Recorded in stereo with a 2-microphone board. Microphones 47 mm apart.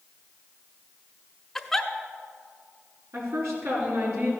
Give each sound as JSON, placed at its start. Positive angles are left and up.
{"t": 1.6, "sound": "a giggle", "side_deg": 5, "distance_m": 0.7}
{"t": 3.1, "sound": "a woman speaking", "side_deg": -70, "distance_m": 5.5}